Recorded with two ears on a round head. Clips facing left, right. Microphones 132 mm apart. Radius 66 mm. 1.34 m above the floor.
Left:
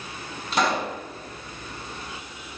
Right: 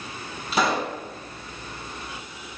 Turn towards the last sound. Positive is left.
turn(degrees=0)  # may be behind; listen again after turning